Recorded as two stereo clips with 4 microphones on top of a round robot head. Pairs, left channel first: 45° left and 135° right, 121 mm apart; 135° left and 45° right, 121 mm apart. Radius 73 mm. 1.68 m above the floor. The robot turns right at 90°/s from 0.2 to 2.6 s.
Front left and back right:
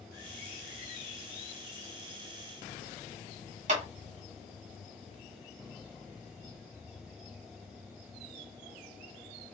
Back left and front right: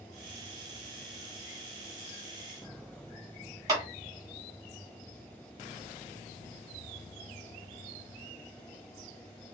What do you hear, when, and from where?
3.7 s a clap: 110° right, 1.7 m